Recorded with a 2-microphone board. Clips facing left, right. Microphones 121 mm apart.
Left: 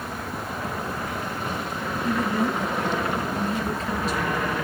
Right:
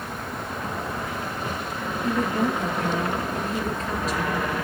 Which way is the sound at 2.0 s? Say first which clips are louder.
Right 1 dB; 40° right (ahead or behind).